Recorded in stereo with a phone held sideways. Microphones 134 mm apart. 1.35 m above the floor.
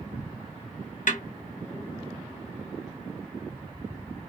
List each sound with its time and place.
1.1 s a snare drum: 70° left (ahead or behind), 1.0 m